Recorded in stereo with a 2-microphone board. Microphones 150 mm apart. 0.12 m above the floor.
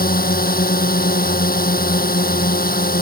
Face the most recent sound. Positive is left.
turn(degrees=70)  # may be behind; listen again after turning